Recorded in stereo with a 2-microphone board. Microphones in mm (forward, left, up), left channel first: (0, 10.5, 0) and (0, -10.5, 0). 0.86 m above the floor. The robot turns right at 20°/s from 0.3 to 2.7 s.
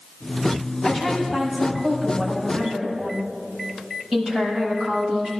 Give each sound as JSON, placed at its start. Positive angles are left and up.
{"t": 0.8, "sound": "a woman speaking", "azimuth_deg": 160, "distance_m": 6.5}